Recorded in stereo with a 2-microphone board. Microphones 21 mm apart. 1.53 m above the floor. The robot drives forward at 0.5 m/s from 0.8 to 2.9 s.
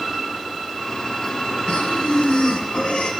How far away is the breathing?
About 8 m.